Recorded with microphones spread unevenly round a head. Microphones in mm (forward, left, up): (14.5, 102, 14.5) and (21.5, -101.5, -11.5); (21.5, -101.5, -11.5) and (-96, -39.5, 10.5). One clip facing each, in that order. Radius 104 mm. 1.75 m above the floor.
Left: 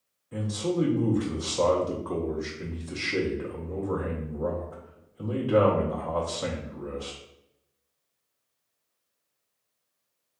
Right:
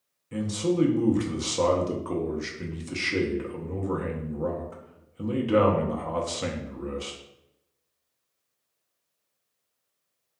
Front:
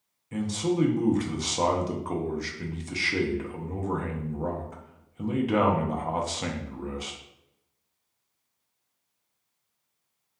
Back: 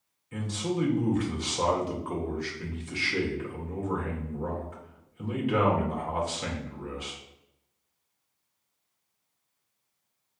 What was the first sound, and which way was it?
A man speaking, 50° right.